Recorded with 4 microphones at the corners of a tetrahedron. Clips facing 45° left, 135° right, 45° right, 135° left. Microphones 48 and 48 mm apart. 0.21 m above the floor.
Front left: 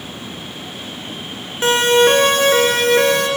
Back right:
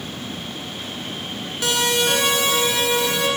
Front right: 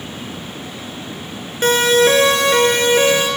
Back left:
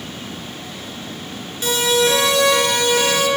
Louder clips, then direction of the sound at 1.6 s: Front left 8 dB, front right 5 dB; 10° right.